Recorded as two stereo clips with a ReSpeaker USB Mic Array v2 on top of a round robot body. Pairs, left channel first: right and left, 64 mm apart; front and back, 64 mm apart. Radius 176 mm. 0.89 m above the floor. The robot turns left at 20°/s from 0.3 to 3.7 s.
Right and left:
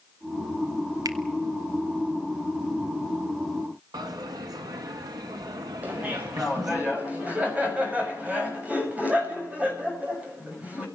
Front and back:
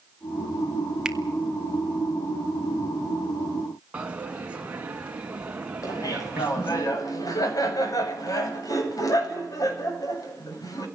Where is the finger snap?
100° left, 2 m.